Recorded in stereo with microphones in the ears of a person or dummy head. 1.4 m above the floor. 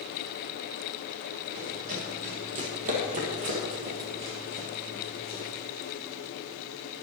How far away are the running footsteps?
About 3.5 m.